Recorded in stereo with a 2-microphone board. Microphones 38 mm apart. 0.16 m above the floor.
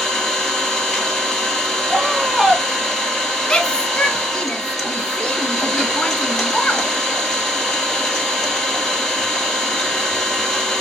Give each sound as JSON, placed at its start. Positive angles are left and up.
{"t": 0.0, "sound": "an engine running", "side_deg": 15, "distance_m": 1.9}
{"t": 1.9, "sound": "a scream", "side_deg": -10, "distance_m": 1.7}
{"t": 3.5, "sound": "a shout", "side_deg": 25, "distance_m": 1.1}